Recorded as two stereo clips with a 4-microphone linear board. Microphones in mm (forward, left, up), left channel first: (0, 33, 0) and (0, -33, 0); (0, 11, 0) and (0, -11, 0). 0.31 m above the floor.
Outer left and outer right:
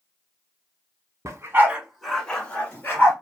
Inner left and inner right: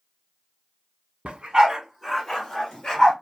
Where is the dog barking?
55° right (ahead or behind), 1.1 m; by 3.1 s 30° left (ahead or behind), 2.5 m.